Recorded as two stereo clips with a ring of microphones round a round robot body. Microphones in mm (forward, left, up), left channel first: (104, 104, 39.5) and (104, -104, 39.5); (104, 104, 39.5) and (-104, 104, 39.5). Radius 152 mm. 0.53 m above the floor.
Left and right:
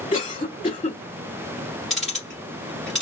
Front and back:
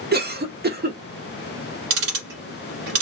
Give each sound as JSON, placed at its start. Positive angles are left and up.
{"t": 0.1, "sound": "a cough", "azimuth_deg": 155, "distance_m": 1.2}
{"t": 1.9, "sound": "ticking", "azimuth_deg": 180, "distance_m": 1.7}